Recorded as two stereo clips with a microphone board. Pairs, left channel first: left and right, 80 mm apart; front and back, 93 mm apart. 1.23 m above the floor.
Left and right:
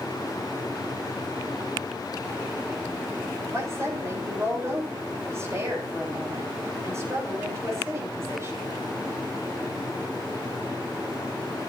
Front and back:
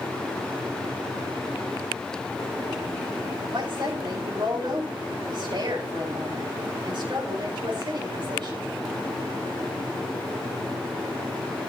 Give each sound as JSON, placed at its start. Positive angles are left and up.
{"t": 3.5, "sound": "a woman speaking", "azimuth_deg": -145, "distance_m": 8.5}